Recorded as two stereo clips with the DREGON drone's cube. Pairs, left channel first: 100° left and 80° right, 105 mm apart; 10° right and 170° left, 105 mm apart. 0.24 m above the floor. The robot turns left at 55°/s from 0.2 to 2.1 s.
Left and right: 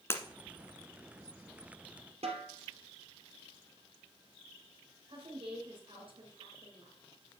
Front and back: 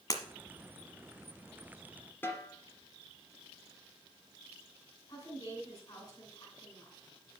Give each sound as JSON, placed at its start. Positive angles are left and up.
{"t": 0.1, "sound": "breaking glass", "azimuth_deg": 35, "distance_m": 1.2}
{"t": 2.2, "sound": "a snare drum", "azimuth_deg": -80, "distance_m": 2.5}
{"t": 5.1, "sound": "a woman speaking", "azimuth_deg": -60, "distance_m": 2.5}